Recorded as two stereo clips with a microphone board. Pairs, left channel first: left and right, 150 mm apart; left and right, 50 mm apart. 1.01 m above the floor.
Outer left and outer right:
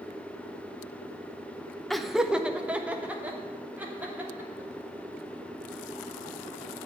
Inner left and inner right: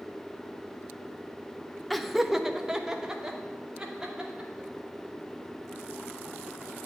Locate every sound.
1.9 s laughter: centre (ahead or behind), 0.6 m; by 4.7 s 10° right (ahead or behind), 3 m